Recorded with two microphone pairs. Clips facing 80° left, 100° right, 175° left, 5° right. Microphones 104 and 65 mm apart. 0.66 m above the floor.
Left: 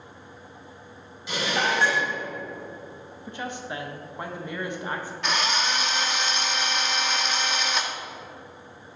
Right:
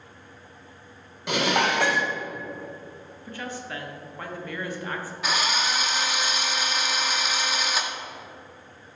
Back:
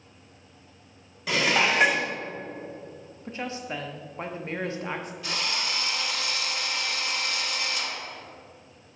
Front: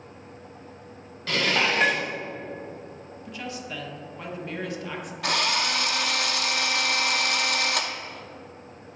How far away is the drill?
About 0.7 m.